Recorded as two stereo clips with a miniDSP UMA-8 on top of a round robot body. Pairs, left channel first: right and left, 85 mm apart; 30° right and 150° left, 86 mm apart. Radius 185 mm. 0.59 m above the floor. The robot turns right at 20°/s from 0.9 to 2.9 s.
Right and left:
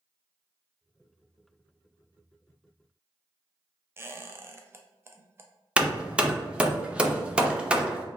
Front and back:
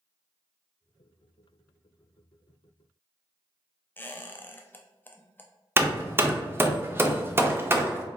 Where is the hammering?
155° left, 0.7 m.